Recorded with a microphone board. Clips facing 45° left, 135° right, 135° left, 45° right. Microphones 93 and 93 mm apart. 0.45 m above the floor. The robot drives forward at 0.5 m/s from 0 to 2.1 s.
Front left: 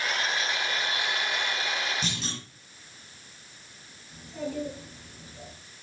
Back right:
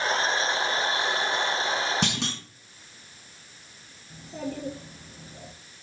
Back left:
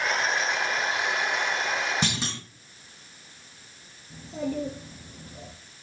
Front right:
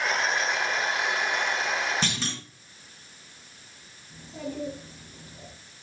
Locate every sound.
2.0 s a clunk: 150° right, 2.5 m
4.1 s a child speaking: 175° left, 4.5 m